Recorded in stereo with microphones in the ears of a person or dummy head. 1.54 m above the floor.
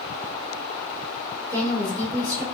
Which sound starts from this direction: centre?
A woman speaking, at 1.5 s.